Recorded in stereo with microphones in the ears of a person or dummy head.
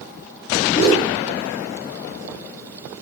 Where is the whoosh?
70° left (ahead or behind), 1.4 m.